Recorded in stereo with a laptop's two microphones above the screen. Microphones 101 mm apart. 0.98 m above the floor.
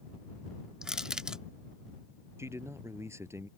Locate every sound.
0.8 s crushing: 5° right (ahead or behind)
2.4 s a man speaking: 25° right (ahead or behind)